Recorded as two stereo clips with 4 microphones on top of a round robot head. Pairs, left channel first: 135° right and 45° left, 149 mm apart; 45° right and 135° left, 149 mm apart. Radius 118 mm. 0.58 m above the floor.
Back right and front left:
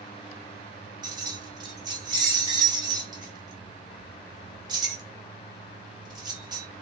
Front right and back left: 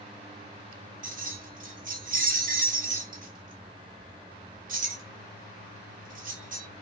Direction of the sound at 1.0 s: 110° left.